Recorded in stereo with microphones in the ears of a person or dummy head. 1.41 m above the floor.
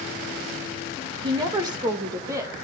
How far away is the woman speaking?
About 1.3 m.